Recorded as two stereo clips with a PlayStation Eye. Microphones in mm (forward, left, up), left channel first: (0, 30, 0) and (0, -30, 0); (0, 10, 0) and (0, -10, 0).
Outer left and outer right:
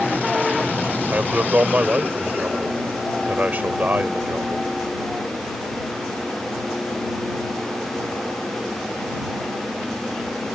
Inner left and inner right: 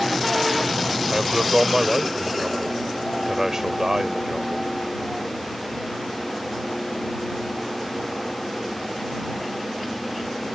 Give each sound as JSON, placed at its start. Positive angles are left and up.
{"t": 1.1, "sound": "a man speaking", "side_deg": -30}